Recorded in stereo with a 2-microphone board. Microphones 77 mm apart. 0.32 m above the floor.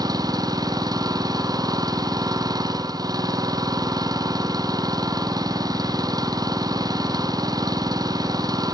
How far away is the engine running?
About 3 m.